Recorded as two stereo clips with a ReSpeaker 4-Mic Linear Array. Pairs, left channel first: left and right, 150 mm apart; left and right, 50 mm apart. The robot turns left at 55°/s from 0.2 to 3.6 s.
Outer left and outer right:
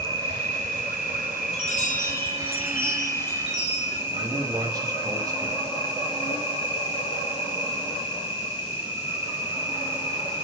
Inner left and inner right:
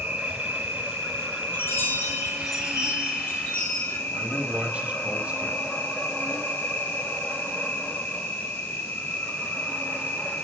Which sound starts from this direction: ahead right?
An insect, at 0.0 s.